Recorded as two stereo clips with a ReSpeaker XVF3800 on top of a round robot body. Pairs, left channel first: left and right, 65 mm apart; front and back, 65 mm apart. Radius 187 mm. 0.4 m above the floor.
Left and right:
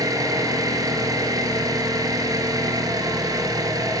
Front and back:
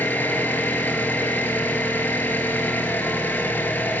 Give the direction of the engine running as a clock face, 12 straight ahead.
2 o'clock.